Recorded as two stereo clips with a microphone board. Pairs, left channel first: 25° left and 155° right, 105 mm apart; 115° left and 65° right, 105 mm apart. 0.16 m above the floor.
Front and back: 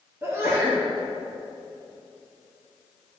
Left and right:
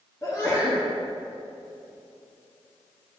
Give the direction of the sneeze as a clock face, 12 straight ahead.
7 o'clock.